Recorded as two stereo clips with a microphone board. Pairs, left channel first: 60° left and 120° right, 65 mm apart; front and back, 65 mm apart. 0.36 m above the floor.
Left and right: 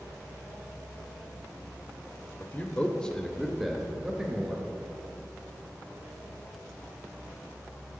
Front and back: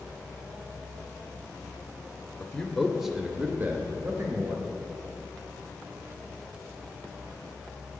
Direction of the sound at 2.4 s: 45° left.